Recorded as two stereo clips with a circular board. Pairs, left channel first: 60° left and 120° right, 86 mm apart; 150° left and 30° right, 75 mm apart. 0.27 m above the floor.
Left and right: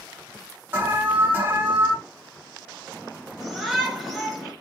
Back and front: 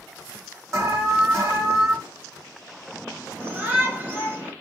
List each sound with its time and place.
0.7 s an alarm: 60° right, 1.4 m
3.4 s a shout: 35° right, 1.3 m